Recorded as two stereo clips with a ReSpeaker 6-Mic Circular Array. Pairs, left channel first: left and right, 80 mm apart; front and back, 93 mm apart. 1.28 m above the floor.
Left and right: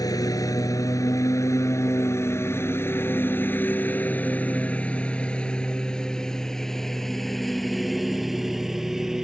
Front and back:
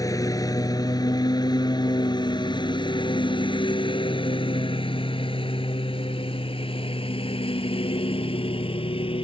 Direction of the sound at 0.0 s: 50° left.